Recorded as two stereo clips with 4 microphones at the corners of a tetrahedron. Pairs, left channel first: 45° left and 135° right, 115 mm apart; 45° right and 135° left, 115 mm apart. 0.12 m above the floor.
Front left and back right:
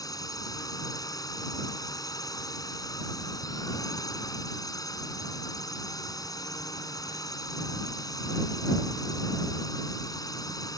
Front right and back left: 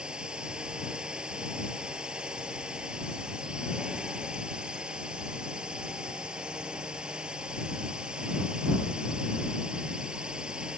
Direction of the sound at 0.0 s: 60° left.